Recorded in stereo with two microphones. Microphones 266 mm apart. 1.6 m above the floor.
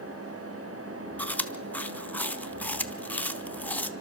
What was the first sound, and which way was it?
Chewing, 5° left (ahead or behind).